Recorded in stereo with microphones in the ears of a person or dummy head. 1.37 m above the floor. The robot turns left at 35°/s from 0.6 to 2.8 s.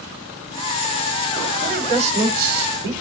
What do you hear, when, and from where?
1.6 s a woman speaking: 25° right, 8.5 m; by 2.9 s 70° right, 8.5 m